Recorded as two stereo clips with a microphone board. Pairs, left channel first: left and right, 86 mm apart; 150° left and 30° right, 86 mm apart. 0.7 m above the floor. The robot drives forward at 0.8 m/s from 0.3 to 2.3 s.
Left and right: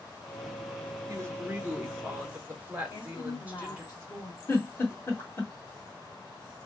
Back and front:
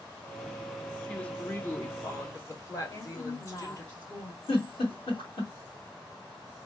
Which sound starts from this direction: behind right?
A woman speaking, at 1.1 s.